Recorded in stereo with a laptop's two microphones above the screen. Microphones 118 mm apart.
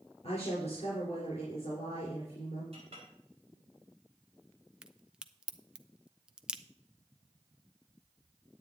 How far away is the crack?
About 0.7 m.